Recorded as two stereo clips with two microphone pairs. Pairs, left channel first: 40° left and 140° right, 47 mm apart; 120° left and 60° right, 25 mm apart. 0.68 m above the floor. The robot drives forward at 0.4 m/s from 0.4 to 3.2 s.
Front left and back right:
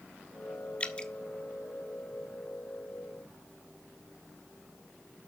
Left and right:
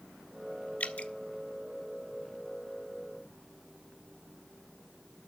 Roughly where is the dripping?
Left.